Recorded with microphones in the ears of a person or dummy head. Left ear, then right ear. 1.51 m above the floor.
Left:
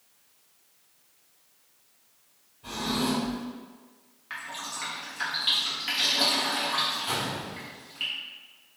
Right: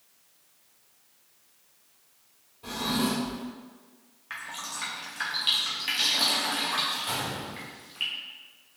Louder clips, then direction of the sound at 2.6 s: Even; 50° right (ahead or behind).